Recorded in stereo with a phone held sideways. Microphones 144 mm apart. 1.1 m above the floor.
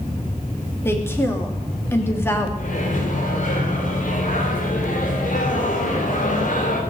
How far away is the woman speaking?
About 2.5 m.